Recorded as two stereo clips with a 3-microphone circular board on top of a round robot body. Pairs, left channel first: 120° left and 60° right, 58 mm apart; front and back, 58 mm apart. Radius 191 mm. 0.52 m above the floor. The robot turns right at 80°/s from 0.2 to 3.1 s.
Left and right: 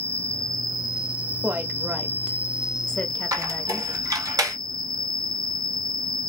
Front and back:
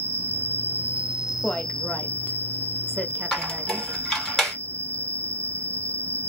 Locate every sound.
0.0 s an insect: 165° left, 1.0 m; by 6.3 s 35° left, 1.0 m
1.4 s a woman speaking: 55° right, 1.0 m; by 3.9 s 80° left, 1.0 m
3.3 s a squeak: 80° right, 1.4 m